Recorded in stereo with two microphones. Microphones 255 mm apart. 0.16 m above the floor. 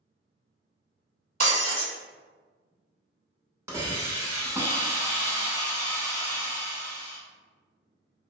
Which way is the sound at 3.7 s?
10° right (ahead or behind).